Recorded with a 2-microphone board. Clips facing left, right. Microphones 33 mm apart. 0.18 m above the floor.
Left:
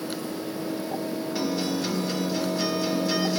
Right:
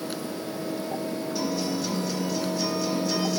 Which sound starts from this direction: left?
A guitar, at 1.4 s.